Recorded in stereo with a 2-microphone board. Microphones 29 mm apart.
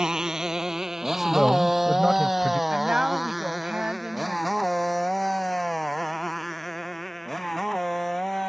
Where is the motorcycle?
25° right (ahead or behind); by 8.5 s 5° left (ahead or behind).